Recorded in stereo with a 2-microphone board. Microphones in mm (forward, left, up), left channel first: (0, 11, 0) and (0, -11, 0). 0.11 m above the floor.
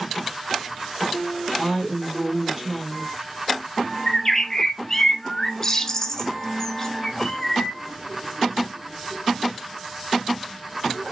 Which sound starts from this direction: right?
A woman speaking, at 1.6 s.